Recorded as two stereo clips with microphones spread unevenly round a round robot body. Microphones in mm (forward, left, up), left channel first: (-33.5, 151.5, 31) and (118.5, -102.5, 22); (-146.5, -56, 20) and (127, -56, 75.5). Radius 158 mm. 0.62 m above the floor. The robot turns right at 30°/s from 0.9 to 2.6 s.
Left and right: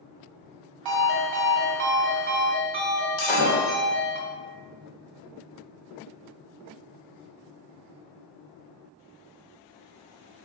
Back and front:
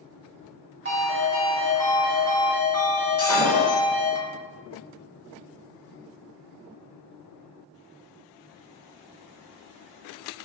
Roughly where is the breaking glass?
Left.